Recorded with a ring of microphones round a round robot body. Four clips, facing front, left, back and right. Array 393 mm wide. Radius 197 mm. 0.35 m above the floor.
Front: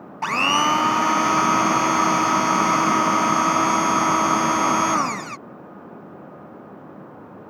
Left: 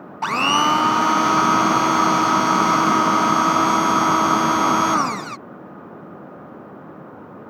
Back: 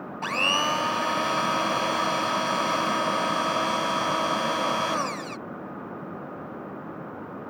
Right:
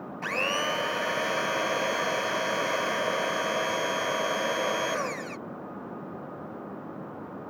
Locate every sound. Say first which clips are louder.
0.2 s a blender: left 12 dB, front 7 dB; 65° left